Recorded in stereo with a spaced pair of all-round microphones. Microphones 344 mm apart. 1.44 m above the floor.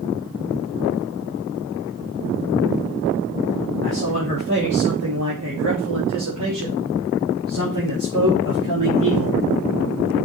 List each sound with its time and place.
3.8 s a man speaking: 35° right (ahead or behind), 4 m; by 9.4 s 75° right (ahead or behind), 4.5 m